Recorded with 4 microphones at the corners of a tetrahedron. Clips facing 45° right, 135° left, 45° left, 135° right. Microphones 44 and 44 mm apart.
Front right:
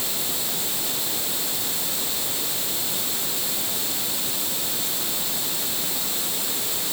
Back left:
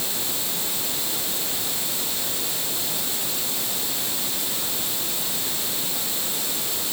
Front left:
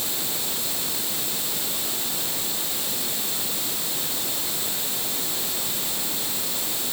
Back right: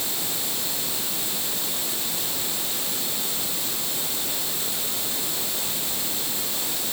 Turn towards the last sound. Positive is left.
No sound to turn to.